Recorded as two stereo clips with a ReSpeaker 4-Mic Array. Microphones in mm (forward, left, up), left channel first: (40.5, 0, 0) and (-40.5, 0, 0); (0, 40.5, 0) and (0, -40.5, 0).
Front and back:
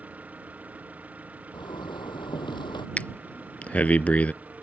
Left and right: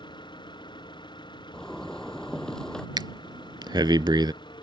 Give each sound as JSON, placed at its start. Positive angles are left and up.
{"t": 0.0, "sound": "an engine running", "azimuth_deg": 110}
{"t": 1.5, "sound": "a zipper", "azimuth_deg": 10}
{"t": 3.0, "sound": "breathing", "azimuth_deg": -70}